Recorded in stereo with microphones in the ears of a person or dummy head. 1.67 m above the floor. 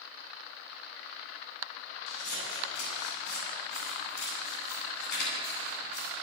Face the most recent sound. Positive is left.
turn(degrees=70)  # may be behind; listen again after turning